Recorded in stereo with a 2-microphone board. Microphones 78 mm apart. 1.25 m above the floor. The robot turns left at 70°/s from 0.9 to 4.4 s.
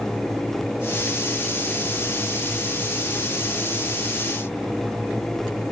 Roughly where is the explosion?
No explosion in this recording.